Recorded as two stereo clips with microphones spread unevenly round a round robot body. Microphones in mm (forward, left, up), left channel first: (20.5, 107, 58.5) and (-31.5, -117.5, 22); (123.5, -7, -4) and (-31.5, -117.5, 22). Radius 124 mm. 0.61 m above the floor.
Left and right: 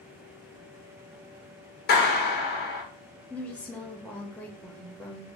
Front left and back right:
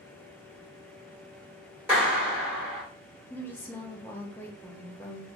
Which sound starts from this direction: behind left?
A clap, at 1.9 s.